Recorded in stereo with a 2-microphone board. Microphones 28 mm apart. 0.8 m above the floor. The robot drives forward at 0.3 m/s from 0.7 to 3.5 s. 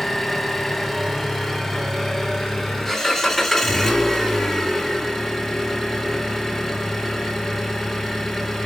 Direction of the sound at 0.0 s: 5° left (ahead or behind).